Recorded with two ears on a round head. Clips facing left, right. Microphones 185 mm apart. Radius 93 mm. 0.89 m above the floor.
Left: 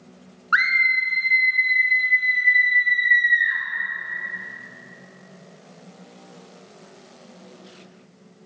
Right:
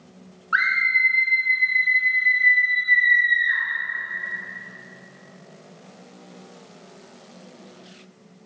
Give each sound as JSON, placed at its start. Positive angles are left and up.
{"t": 0.5, "sound": "a scream", "side_deg": 60, "distance_m": 0.9}